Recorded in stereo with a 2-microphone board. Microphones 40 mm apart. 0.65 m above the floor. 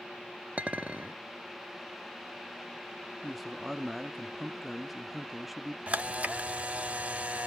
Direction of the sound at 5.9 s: 35° right (ahead or behind).